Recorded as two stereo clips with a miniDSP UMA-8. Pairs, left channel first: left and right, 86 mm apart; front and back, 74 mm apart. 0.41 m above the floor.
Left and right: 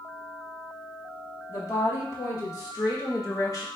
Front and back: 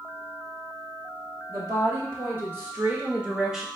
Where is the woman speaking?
135° left, 2.5 m; by 3.6 s 100° left, 1.4 m.